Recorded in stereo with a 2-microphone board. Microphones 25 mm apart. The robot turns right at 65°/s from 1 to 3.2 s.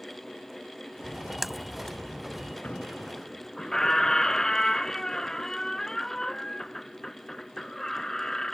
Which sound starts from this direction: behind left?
A squeak, at 2.6 s.